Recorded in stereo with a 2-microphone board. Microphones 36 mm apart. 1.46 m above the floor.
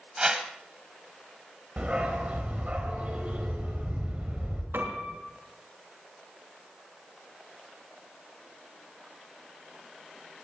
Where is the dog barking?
35° right (ahead or behind), 3.5 m.